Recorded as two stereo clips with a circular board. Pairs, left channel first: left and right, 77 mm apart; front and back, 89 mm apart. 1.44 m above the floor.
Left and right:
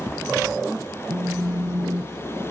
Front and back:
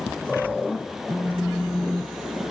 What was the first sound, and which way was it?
A phone buzzing, 105° right.